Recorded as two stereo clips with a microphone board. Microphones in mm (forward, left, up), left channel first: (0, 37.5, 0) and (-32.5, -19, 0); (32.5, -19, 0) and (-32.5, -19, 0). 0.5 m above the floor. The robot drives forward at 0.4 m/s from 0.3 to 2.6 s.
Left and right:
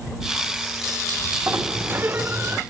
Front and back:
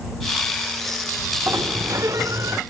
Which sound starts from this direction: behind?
A sliding door, at 1.5 s.